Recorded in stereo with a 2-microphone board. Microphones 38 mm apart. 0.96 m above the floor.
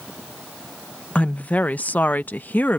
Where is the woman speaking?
35° left (ahead or behind); by 2.8 s 50° left (ahead or behind).